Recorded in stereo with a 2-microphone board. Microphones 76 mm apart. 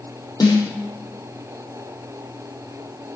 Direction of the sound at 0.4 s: 65° left (ahead or behind).